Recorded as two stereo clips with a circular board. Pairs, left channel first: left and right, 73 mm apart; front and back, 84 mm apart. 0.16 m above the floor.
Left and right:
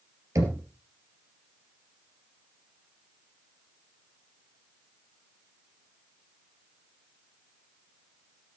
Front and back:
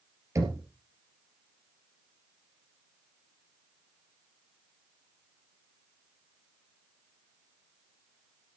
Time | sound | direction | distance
0.3 | knocking | 130° right | 2.5 m